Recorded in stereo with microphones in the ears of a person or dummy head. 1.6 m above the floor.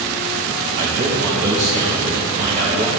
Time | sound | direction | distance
0.7 | a man speaking | 40° right (ahead or behind) | 2.5 m